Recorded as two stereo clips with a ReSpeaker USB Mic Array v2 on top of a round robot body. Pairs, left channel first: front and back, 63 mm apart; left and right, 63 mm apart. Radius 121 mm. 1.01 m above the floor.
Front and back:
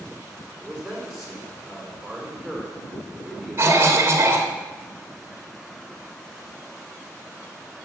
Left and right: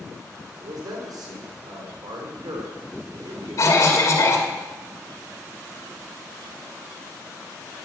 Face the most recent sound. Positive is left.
turn(degrees=125)